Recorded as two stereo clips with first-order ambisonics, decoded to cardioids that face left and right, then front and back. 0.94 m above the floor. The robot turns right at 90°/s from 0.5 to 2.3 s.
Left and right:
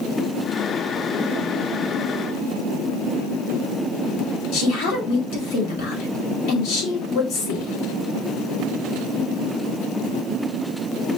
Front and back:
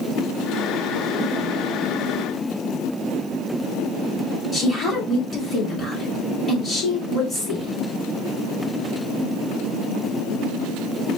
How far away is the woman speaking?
About 2 m.